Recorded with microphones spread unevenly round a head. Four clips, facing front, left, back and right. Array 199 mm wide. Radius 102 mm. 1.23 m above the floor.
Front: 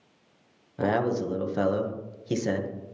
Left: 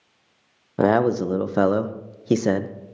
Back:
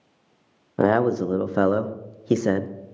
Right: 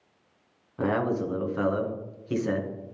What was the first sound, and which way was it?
A man speaking, 130° left.